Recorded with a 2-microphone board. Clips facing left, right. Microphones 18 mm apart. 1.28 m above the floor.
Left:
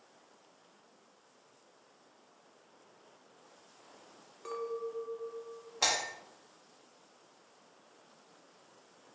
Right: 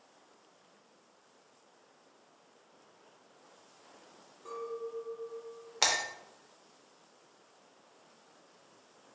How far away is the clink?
About 0.5 m.